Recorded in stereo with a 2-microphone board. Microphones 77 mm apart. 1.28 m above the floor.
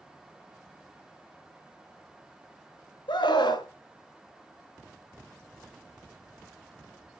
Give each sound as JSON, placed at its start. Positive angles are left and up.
{"t": 3.1, "sound": "a scream", "side_deg": 80, "distance_m": 1.3}